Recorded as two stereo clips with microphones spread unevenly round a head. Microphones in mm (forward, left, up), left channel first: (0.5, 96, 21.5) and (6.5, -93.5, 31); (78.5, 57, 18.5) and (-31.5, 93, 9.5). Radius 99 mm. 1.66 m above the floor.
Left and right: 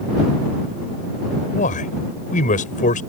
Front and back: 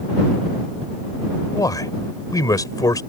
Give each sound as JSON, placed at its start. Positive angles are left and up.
{"t": 1.5, "sound": "a man speaking", "azimuth_deg": 40}